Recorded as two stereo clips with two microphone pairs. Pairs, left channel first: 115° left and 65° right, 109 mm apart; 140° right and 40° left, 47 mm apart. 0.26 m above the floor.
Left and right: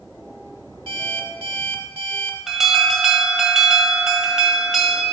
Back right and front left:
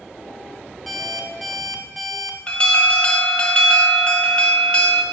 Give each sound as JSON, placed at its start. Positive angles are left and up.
{"t": 0.9, "sound": "an alarm clock", "azimuth_deg": -50, "distance_m": 1.1}
{"t": 2.5, "sound": "an alarm", "azimuth_deg": -140, "distance_m": 1.2}